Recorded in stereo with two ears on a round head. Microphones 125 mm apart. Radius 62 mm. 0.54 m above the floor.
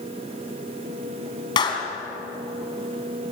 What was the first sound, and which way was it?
A clap, 30° left (ahead or behind).